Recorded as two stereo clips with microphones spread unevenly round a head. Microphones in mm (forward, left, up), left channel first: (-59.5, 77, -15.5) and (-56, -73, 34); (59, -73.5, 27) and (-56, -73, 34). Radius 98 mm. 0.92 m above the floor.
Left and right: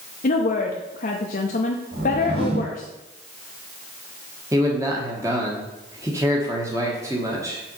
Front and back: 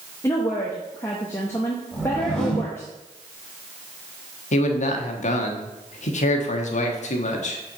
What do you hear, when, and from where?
0.2 s a woman speaking: 70° left, 0.8 m
1.9 s a whoosh: 85° right, 3.5 m
4.5 s a man speaking: 10° right, 1.3 m